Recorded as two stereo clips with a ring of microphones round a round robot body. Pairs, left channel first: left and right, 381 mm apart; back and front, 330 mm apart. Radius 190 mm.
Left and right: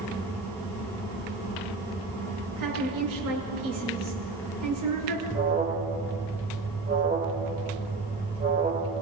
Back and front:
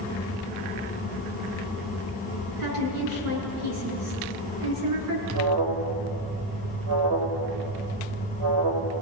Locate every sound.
2.6 s a woman speaking: 50° right, 7 m
5.3 s an alarm: 20° right, 3 m